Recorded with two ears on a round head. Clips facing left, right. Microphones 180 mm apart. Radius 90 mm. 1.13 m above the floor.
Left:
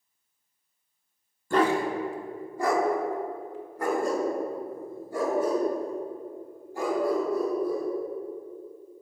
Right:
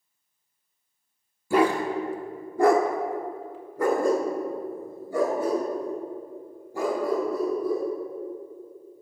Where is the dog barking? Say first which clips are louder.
Right 2 dB; 10° right (ahead or behind), 0.9 m; by 7.9 s 70° right (ahead or behind), 3.5 m.